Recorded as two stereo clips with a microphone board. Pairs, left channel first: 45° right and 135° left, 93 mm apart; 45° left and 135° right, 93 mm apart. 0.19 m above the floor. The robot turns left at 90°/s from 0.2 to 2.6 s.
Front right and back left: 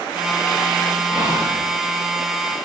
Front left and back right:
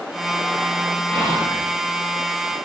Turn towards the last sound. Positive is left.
turn(degrees=-30)